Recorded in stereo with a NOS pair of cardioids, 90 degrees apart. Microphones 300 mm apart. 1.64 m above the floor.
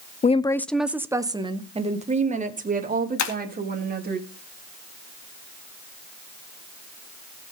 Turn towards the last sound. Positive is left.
turn(degrees=65)